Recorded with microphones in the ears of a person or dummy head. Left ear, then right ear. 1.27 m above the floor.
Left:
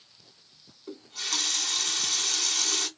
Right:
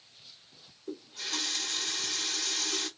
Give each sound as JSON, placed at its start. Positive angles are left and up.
{"t": 0.9, "sound": "a running tap", "side_deg": 70, "distance_m": 1.2}